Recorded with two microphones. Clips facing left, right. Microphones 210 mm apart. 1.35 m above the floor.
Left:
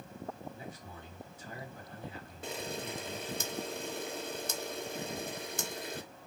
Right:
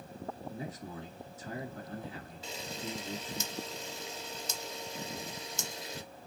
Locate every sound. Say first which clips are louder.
0.5 s a man speaking: right 5 dB; 85° right, 1.8 m
2.4 s a camera shutter: left 3 dB; 55° left (ahead or behind), 0.6 m